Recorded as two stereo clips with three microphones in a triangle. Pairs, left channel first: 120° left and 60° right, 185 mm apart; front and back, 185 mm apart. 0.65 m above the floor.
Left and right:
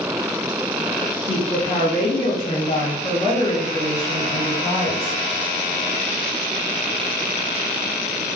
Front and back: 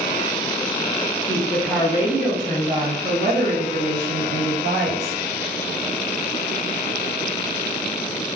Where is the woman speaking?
70° left, 1.1 m; by 5.2 s 165° right, 2 m.